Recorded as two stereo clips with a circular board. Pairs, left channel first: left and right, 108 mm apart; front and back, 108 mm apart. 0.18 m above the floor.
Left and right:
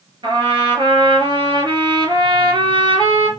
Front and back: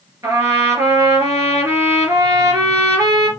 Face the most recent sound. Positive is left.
turn(degrees=-125)